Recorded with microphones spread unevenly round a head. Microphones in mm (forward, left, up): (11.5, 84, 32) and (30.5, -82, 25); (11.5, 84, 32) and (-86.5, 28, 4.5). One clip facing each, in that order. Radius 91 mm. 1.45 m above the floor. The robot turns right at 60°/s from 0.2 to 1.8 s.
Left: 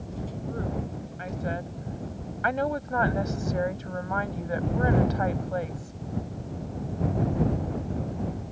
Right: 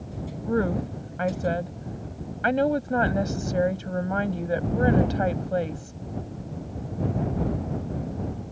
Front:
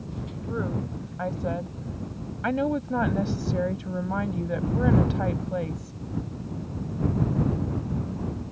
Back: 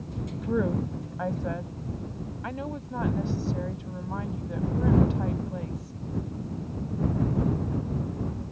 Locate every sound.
0.5 s a woman speaking: 105° right; by 6.0 s 25° right